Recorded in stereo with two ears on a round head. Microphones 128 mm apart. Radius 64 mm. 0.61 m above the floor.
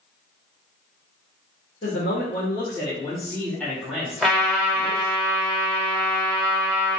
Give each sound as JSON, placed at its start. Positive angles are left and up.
{"t": 1.8, "sound": "a man speaking", "side_deg": 50, "distance_m": 1.7}
{"t": 4.2, "sound": "a trumpet", "side_deg": 0, "distance_m": 1.1}